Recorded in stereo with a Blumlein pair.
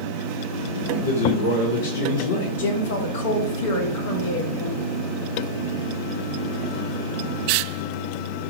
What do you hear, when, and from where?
0.9 s a man speaking: 65° left, 0.9 m
2.6 s a woman speaking: 55° left, 1.1 m